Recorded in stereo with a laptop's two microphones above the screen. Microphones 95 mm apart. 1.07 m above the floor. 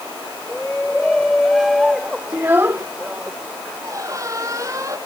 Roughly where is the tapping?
I don't hear tapping.